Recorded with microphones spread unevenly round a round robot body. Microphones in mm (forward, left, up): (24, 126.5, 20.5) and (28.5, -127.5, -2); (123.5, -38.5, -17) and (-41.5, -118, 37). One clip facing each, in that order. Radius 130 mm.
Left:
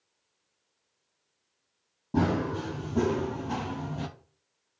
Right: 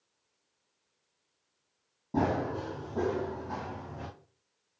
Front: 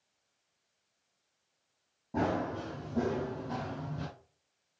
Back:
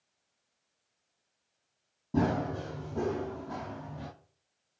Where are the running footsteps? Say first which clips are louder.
Left 3 dB, back 3 dB; 155° left, 1.0 m; by 4.1 s 85° left, 1.0 m.